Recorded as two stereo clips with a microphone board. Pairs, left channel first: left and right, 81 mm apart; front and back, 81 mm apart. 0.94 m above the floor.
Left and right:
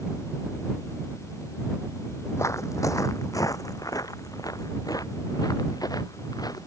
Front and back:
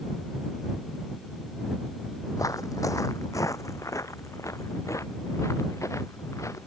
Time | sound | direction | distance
2.4 | footsteps | 40° left | ?